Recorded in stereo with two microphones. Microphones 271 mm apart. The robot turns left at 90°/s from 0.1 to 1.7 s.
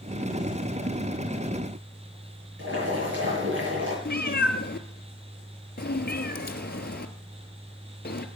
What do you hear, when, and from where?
2.6 s boiling: 45° right (ahead or behind), 7.5 m
4.0 s a cat meowing: 35° left (ahead or behind), 1.2 m